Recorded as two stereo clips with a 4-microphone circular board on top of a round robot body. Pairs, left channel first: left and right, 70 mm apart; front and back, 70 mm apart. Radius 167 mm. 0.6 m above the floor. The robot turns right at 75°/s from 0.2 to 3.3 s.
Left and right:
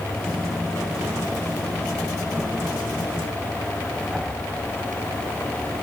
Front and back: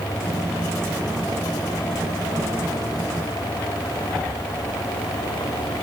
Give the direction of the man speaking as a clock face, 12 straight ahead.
No man speaking in this recording.